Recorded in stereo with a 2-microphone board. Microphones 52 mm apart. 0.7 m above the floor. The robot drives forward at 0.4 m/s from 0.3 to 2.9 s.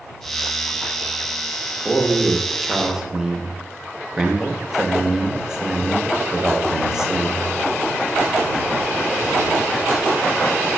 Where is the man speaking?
5° right (ahead or behind), 0.8 m; by 7.6 s 10° right (ahead or behind), 0.5 m.